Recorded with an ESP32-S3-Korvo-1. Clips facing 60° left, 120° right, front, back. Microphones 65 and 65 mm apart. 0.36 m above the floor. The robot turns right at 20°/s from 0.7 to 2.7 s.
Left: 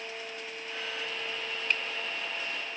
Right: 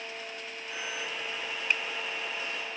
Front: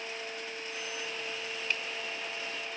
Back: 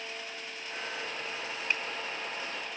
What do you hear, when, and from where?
1.7 s a finger snap: straight behind, 0.7 m